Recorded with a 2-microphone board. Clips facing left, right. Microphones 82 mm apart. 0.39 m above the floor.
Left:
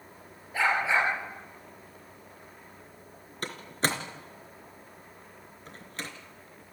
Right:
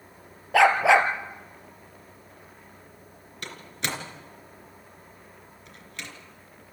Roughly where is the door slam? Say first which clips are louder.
Left 4 dB; left.